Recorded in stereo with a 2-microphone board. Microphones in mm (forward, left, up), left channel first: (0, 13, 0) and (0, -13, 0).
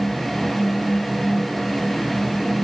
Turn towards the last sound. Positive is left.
No sound to turn to.